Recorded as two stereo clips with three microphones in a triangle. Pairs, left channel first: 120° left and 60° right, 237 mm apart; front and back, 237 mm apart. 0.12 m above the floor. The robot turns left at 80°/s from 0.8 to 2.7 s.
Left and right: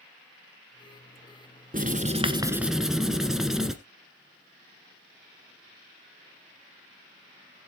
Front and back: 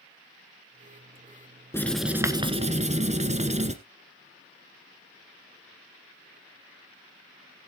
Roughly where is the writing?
Right.